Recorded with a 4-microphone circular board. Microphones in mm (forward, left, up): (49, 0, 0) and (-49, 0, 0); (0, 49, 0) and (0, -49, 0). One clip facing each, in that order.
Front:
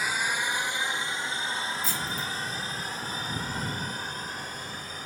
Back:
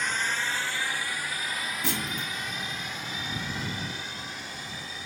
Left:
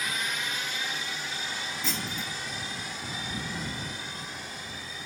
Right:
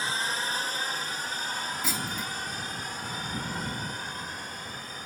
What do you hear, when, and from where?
0.0 s a drone: 75° right; by 5.1 s 45° right
1.8 s a clunk: 175° right